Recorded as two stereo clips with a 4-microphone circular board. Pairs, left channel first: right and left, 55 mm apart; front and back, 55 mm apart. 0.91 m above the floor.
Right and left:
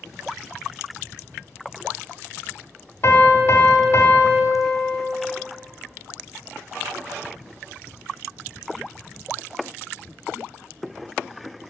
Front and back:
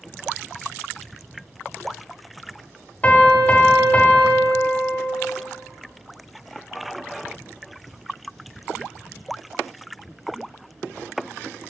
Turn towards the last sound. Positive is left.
turn(degrees=-60)